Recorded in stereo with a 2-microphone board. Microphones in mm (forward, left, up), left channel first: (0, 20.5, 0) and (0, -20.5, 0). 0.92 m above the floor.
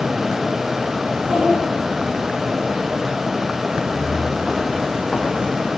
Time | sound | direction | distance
1.1 | a child speaking | 30° right (ahead or behind) | 8 m
3.7 | footsteps | 10° right (ahead or behind) | 3 m